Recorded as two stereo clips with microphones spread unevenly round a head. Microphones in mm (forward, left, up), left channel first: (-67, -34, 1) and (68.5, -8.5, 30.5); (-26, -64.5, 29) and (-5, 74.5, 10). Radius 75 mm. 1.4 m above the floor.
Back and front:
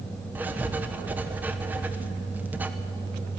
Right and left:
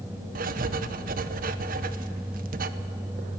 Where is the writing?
95° left, 1.0 m.